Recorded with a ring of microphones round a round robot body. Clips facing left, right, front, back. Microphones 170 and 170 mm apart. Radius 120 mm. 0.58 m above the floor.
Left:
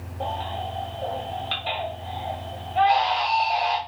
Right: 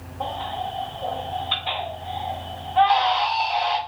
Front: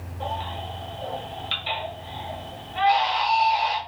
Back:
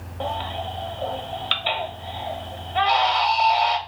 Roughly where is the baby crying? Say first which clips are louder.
Right 1 dB, back 4 dB; behind left.